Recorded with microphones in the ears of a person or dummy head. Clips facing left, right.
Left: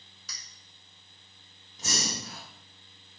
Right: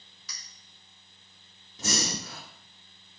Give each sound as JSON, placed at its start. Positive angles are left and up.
{"t": 0.3, "sound": "a clink", "side_deg": 0, "distance_m": 1.8}
{"t": 1.8, "sound": "breathing", "side_deg": -60, "distance_m": 1.5}